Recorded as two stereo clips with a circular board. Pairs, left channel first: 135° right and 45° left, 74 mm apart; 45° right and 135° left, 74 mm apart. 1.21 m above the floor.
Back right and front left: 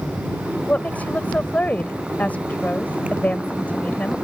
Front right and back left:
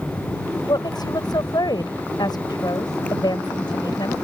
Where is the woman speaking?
65° right.